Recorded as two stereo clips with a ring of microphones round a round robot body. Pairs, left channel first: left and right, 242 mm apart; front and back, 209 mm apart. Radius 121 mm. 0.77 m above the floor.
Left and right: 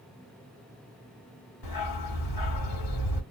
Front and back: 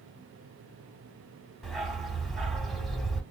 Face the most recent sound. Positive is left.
turn(degrees=90)